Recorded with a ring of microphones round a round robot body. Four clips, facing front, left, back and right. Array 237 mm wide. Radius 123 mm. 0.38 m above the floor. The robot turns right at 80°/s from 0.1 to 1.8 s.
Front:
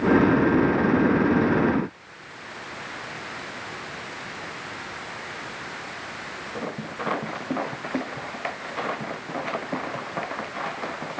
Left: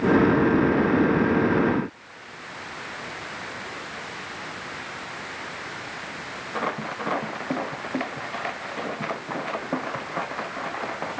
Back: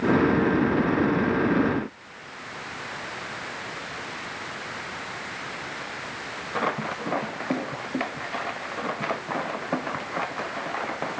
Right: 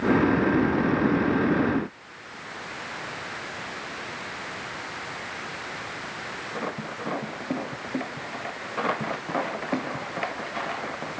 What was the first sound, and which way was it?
Only background noise.